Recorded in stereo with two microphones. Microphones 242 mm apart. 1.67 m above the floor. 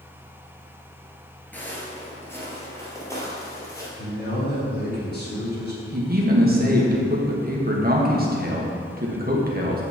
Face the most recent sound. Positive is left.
turn(degrees=-40)  # may be behind; listen again after turning